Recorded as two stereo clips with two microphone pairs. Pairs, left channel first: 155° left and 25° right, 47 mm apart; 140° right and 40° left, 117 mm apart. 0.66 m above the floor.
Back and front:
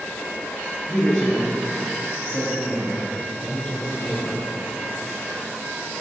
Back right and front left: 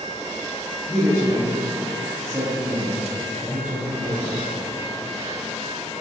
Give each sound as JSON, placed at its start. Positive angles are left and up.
{"t": 0.9, "sound": "a woman speaking", "azimuth_deg": 95, "distance_m": 0.8}